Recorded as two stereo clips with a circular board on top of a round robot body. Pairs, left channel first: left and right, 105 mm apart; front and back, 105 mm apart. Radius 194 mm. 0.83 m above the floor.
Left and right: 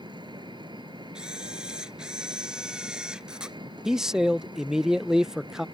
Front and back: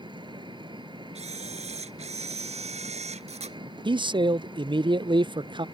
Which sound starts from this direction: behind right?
An engine running, at 0.0 s.